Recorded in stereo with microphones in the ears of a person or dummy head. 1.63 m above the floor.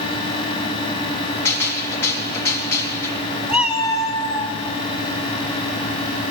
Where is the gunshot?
15° left (ahead or behind), 3 m.